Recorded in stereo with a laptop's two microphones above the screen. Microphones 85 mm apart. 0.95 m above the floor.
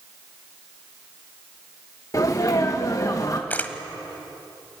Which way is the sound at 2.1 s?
40° left (ahead or behind).